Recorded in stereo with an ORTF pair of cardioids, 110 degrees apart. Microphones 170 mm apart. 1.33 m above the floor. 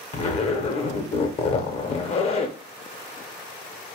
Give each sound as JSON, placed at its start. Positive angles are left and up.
{"t": 0.1, "sound": "a zipper", "azimuth_deg": 35, "distance_m": 0.6}